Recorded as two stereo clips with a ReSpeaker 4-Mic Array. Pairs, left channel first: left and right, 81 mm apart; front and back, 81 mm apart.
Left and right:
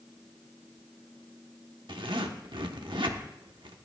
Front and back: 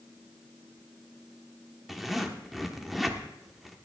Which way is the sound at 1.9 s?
95° right.